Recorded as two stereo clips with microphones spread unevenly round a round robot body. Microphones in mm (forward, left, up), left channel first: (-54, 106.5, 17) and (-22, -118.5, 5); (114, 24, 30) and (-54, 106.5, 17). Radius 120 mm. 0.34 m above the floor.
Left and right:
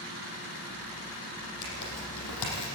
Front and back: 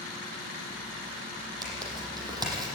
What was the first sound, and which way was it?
Tearing paper, 85° left.